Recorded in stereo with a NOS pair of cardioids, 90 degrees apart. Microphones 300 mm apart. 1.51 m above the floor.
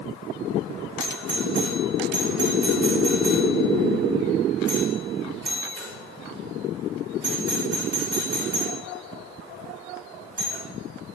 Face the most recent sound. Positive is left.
turn(degrees=-50)